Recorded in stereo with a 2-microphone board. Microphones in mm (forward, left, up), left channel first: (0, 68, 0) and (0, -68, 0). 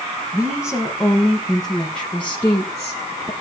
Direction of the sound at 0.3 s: 10° right (ahead or behind).